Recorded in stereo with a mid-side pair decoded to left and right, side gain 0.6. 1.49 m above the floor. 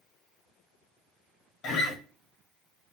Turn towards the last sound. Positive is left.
turn(degrees=55)